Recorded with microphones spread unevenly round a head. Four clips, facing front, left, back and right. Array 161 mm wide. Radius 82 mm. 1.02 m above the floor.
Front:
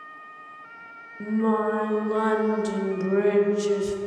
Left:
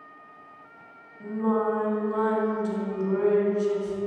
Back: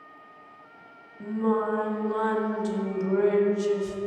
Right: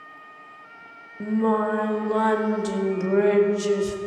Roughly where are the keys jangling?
No keys jangling in this recording.